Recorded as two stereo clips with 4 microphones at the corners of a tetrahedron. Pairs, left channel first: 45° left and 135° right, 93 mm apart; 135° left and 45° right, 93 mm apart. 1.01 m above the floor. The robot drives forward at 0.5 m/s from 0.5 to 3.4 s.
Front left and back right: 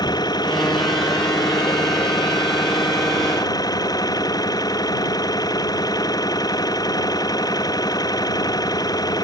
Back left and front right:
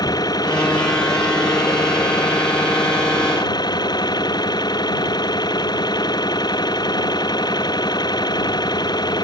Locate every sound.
0.0 s an engine running: 90° left; by 9.2 s 95° left